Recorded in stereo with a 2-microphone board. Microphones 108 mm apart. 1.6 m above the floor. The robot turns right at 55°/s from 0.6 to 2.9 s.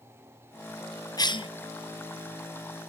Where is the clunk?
I don't hear a clunk.